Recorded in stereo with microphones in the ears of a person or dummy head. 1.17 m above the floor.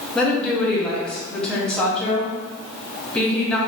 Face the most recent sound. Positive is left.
turn(degrees=10)  # may be behind; listen again after turning